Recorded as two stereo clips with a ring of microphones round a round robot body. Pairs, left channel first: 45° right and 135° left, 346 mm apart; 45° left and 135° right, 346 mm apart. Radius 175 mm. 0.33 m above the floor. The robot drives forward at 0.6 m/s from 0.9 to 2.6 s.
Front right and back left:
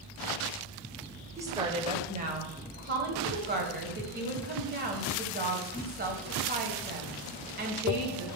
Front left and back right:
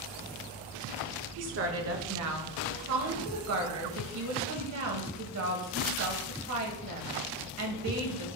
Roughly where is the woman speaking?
Behind right.